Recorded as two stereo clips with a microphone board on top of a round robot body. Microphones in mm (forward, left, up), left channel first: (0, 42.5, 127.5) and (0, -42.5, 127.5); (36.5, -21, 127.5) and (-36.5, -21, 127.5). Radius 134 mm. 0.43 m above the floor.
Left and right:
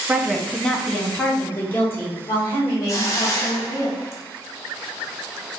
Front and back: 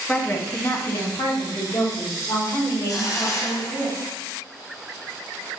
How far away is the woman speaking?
About 0.8 m.